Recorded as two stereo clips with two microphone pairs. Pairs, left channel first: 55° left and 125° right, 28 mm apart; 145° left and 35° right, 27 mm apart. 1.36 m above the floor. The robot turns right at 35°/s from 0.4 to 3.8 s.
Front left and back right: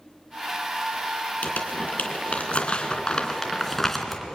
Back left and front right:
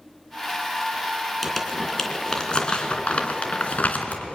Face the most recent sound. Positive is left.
turn(degrees=135)